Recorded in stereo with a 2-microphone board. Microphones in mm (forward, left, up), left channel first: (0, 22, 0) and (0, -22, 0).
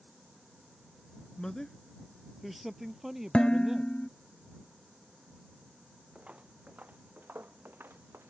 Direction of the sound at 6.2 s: 30° right (ahead or behind).